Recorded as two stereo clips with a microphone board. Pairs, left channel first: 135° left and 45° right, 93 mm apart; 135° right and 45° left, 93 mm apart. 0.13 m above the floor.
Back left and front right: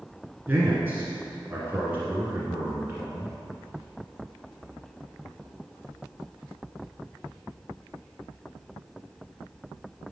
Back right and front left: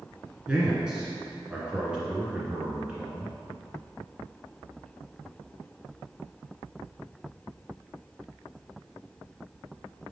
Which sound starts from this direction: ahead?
A man speaking, at 0.5 s.